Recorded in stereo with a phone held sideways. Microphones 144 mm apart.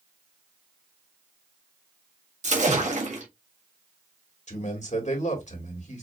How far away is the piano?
No piano in this recording.